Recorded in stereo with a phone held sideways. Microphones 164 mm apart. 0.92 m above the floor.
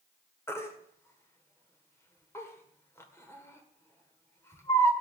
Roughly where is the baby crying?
Centre.